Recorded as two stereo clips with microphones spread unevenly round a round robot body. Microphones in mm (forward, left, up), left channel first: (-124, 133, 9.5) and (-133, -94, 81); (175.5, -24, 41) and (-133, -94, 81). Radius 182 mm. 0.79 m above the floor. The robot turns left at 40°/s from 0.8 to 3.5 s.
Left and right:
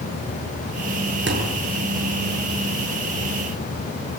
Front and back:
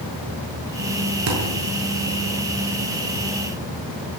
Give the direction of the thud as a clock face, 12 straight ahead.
4 o'clock.